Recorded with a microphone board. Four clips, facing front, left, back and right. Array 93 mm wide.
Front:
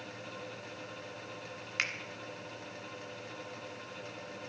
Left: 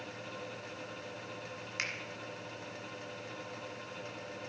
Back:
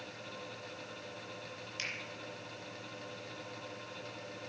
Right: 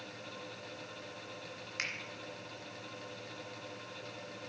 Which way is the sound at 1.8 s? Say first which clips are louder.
Left 1 dB, front 7 dB; 5° left.